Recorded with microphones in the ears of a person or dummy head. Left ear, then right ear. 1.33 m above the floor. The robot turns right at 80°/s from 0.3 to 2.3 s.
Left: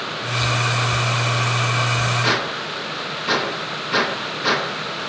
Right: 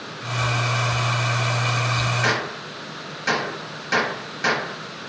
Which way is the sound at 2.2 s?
50° right (ahead or behind).